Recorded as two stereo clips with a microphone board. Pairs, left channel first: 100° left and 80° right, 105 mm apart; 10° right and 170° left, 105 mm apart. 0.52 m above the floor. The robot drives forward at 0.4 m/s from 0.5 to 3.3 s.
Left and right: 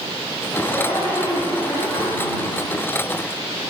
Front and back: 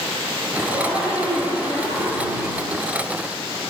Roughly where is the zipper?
Behind.